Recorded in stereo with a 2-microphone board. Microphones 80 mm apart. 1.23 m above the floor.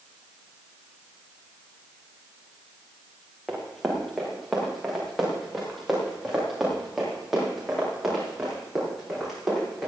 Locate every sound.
3.5 s running footsteps: centre (ahead or behind), 7 m; by 9.9 s 5° right (ahead or behind), 16 m